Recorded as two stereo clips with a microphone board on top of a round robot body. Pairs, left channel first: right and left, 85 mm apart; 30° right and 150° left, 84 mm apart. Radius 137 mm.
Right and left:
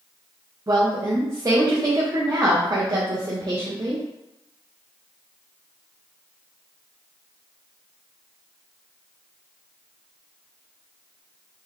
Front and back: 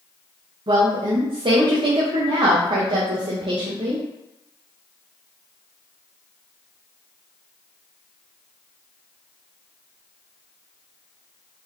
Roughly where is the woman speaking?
Behind left.